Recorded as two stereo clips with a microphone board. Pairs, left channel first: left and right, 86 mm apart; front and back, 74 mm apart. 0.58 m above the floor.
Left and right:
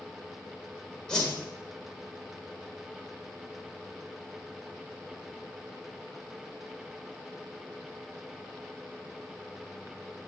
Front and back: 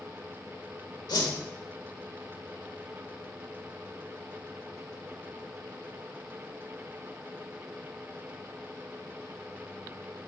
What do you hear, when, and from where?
1.1 s a whoosh: 10° left, 1.3 m